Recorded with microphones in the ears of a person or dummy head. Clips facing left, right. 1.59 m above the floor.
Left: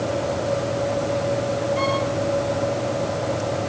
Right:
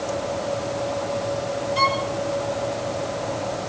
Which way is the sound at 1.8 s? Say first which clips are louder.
Left 2 dB; 60° right (ahead or behind).